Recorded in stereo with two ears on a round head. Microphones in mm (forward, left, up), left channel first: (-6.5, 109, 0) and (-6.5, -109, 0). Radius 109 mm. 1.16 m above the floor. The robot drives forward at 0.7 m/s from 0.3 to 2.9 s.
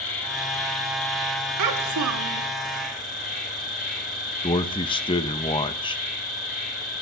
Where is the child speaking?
85° right, 1.7 m; by 2.5 s 75° right (ahead or behind), 1.7 m.